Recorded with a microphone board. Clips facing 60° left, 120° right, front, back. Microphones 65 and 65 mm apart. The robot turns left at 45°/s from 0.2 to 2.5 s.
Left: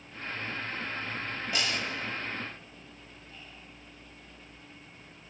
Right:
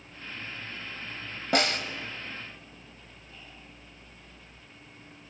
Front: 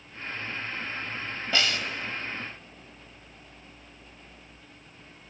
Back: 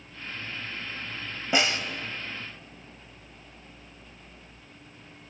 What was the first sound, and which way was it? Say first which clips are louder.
A snare drum: right 7 dB, back 2 dB; 110° right.